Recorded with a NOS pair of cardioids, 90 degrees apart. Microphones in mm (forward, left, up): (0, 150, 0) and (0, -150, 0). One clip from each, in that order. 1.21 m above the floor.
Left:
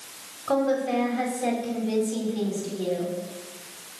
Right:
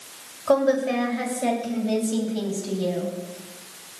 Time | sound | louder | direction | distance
0.5 | a woman speaking | right 4 dB | 60° right | 6.5 m